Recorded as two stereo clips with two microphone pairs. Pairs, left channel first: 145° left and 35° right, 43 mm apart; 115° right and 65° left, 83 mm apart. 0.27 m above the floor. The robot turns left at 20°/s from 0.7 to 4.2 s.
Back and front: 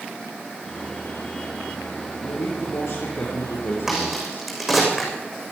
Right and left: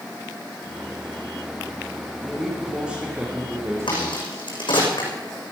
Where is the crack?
115° right, 6.5 m; by 5.1 s 125° right, 6.5 m.